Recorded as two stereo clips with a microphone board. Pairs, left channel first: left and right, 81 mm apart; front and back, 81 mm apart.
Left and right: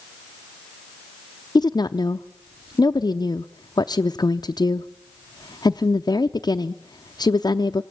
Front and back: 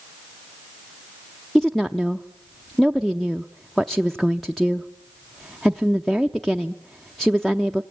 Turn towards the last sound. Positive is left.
turn(degrees=90)